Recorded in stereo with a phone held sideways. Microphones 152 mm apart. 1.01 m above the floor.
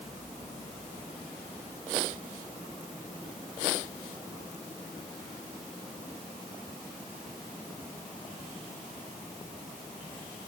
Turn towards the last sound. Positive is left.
No sound to turn to.